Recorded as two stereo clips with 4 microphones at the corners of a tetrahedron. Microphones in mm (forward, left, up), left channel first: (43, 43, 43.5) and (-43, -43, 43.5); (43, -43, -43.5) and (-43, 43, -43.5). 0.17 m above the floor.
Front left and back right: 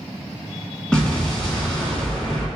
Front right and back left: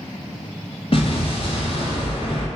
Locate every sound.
0.9 s an explosion: 40° right, 1.4 m